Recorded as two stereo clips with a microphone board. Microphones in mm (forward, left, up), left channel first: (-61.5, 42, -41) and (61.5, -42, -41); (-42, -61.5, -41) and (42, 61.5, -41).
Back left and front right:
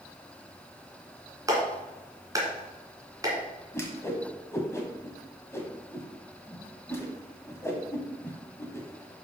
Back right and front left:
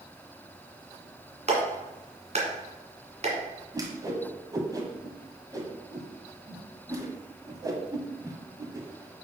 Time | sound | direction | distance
1.5 | a clap | 30° left | 2.0 m
3.7 | a whoosh | 90° left | 1.3 m